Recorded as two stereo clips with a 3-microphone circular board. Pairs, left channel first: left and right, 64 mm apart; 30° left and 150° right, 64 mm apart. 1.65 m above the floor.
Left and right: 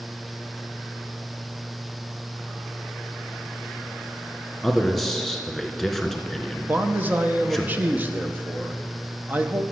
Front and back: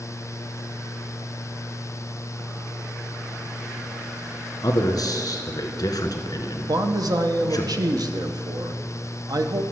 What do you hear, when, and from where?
4.6 s a man speaking: straight ahead, 1.4 m
6.7 s a man speaking: 150° right, 1.0 m